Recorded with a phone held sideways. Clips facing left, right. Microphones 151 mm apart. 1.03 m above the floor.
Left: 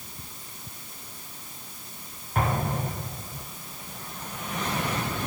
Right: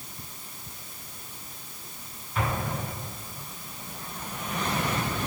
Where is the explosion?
50° left (ahead or behind), 8.5 m.